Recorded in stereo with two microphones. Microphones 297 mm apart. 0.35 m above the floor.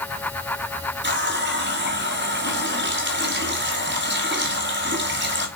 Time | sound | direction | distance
1.0 | a running tap | 40° right (ahead or behind) | 1.6 m